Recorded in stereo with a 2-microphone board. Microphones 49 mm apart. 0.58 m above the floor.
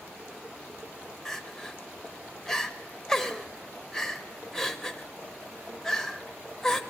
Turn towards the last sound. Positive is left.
turn(degrees=10)  # may be behind; listen again after turning